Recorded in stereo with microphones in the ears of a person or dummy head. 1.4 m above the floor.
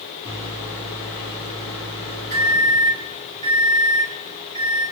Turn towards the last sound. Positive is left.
turn(degrees=25)  # may be behind; listen again after turning